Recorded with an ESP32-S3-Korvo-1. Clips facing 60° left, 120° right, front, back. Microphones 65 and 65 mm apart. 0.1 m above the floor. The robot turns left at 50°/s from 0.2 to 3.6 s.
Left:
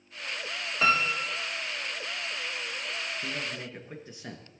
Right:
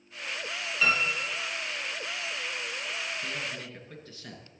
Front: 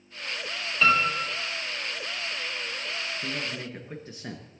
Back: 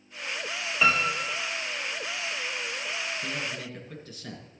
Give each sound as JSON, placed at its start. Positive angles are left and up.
{"t": 0.8, "sound": "a piano", "azimuth_deg": 110, "distance_m": 1.8}
{"t": 3.2, "sound": "a man speaking", "azimuth_deg": 35, "distance_m": 1.5}